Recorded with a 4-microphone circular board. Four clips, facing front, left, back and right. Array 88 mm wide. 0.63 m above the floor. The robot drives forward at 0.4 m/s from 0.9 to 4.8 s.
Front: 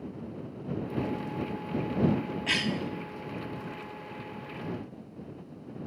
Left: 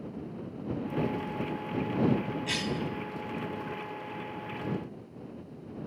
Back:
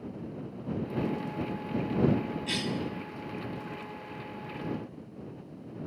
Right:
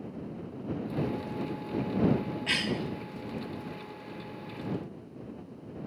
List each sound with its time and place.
2.5 s a cough: 30° right, 0.9 m; by 2.8 s 35° right, 0.8 m